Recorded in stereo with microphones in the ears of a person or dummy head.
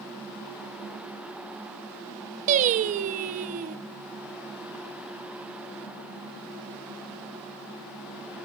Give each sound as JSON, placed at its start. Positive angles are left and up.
{"t": 2.5, "sound": "singing", "side_deg": -40, "distance_m": 0.9}